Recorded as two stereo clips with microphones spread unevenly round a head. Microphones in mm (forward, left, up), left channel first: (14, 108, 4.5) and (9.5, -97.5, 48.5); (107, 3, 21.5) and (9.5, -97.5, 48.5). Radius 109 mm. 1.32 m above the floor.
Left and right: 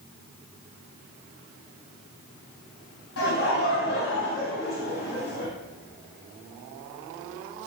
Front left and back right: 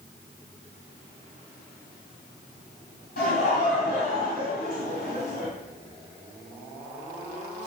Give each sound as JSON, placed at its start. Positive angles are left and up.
{"t": 3.2, "sound": "laughter", "azimuth_deg": 65, "distance_m": 1.7}